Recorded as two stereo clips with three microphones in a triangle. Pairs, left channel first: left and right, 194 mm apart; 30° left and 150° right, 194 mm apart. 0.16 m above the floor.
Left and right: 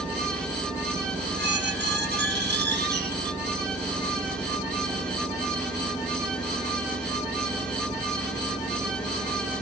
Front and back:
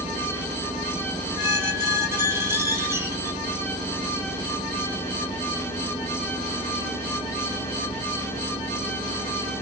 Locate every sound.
1.4 s a squeak: 75° right, 1.1 m